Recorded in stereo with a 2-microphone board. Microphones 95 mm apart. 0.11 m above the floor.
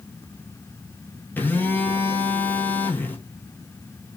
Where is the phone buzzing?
20° left (ahead or behind), 0.8 m.